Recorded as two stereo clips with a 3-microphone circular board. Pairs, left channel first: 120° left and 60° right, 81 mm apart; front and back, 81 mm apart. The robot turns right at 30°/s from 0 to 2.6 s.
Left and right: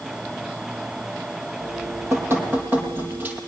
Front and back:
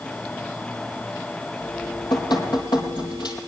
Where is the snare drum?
No snare drum in this recording.